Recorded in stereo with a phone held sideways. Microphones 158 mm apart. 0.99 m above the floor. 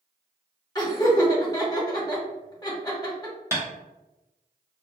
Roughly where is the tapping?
Centre.